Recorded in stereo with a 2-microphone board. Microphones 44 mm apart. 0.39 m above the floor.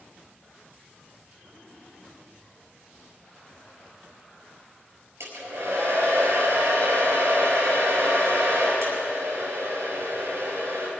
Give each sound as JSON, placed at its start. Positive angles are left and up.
{"t": 5.2, "sound": "a hair dryer", "side_deg": -70, "distance_m": 5.0}